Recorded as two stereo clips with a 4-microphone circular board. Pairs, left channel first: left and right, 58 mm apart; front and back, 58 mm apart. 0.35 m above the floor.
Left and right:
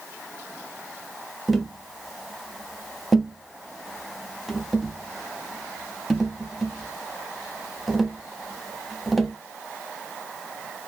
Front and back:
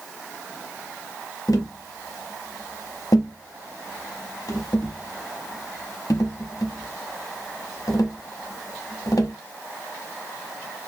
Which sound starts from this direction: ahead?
Tapping, at 1.5 s.